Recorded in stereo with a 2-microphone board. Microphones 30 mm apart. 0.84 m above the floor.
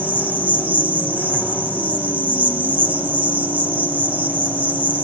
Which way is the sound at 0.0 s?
70° right (ahead or behind).